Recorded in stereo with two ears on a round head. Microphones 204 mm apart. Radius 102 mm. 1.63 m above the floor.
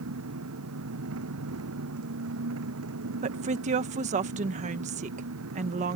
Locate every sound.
0.0 s an engine running: 70° right (ahead or behind)
3.2 s a woman speaking: 30° right (ahead or behind)